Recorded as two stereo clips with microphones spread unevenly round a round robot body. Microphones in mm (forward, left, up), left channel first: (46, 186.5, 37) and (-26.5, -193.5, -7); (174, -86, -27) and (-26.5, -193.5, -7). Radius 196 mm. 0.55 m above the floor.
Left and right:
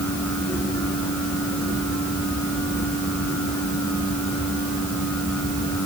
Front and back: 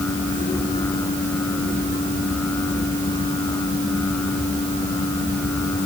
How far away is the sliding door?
No sliding door in this recording.